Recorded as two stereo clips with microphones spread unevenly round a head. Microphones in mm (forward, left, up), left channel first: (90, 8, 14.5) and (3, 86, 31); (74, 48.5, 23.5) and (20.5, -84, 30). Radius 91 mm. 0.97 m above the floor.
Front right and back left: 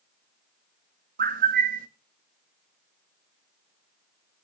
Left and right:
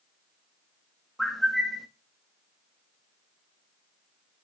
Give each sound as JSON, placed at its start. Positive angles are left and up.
{"t": 1.2, "sound": "a bird", "azimuth_deg": 160, "distance_m": 0.7}